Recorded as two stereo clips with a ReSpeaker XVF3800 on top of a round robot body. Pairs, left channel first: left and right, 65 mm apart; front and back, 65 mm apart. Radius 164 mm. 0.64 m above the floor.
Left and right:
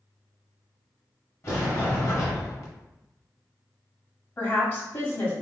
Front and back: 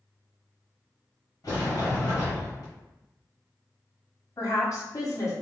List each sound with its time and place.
1.4 s a sliding door: 45° left, 1.6 m
4.4 s a woman speaking: 40° left, 1.7 m